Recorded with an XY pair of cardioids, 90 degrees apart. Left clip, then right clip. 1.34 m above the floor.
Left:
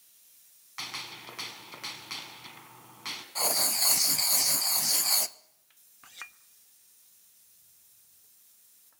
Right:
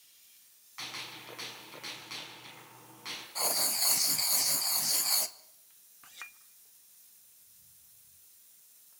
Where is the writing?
30° left, 1.1 m.